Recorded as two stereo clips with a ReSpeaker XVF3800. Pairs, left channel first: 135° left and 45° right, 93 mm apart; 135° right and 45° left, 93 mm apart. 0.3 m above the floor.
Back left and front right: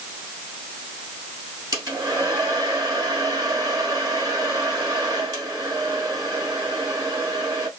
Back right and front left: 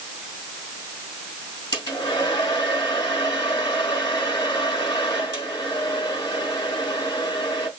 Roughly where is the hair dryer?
Right.